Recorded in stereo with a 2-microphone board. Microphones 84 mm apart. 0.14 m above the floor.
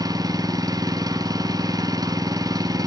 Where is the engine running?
45° right (ahead or behind), 1.2 m.